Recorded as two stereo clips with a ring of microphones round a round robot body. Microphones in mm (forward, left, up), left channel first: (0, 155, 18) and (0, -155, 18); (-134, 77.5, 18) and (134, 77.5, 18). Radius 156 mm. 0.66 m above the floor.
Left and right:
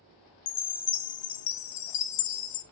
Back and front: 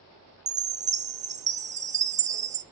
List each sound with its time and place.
0.5 s a chime: 65° left, 0.6 m